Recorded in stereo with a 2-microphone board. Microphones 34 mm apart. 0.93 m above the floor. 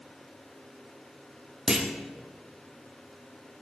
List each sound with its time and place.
1.7 s a clunk: 15° right (ahead or behind), 1.0 m